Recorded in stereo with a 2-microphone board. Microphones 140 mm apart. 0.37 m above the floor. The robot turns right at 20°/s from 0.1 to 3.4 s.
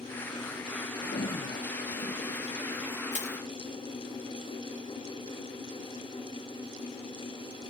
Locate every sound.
1.0 s a toilet flushing: 95° left; by 3.0 s 135° left
3.1 s crushing: 60° left (ahead or behind); by 3.4 s 55° left (ahead or behind)